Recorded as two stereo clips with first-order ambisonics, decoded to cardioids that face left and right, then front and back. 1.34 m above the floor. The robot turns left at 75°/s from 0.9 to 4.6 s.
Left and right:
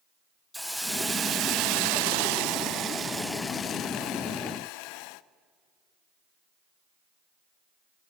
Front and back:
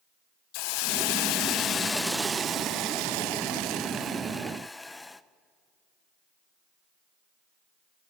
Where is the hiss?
Straight ahead, 0.6 m; by 5.2 s 85° left, 0.6 m.